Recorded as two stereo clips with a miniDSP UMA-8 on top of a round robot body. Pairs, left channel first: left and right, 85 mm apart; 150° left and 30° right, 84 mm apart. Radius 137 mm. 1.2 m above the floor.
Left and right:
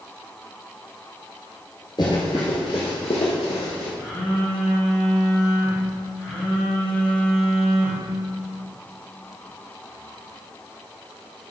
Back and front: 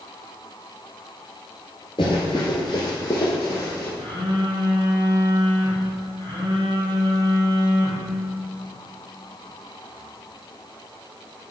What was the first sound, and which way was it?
Running footsteps, 125° left.